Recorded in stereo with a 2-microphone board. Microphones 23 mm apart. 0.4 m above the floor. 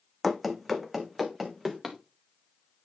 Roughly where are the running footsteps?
Centre.